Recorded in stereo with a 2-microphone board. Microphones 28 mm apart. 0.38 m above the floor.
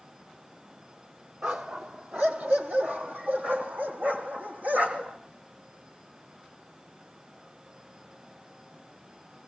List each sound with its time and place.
1.4 s a dog barking: 65° right (ahead or behind), 3 m; by 5.2 s 70° right (ahead or behind), 5.5 m